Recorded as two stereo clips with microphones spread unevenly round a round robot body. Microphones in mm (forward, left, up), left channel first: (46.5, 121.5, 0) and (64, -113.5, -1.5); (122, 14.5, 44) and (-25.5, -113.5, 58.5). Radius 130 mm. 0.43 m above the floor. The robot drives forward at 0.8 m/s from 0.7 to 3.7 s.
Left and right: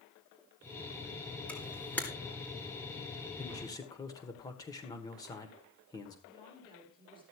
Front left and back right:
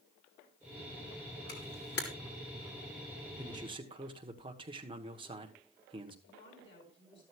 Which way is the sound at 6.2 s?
25° left.